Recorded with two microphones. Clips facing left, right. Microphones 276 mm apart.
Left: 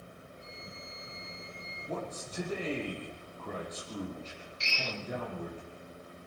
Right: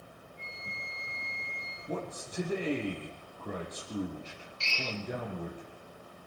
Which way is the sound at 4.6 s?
15° left (ahead or behind).